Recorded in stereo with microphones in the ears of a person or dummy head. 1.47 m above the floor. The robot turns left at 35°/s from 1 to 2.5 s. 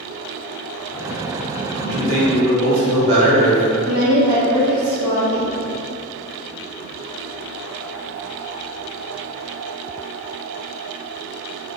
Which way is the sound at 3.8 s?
50° right (ahead or behind).